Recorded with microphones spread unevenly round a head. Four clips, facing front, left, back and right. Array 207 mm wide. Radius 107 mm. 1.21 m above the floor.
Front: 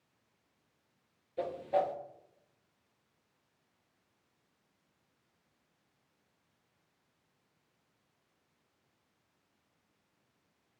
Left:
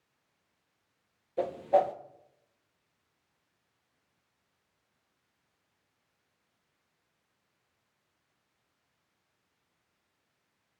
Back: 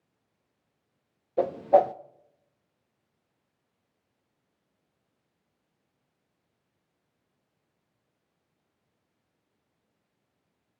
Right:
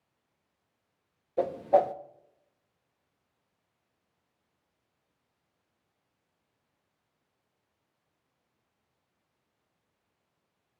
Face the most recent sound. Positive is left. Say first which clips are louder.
# right 2 dB, back 11 dB
turn(degrees=-165)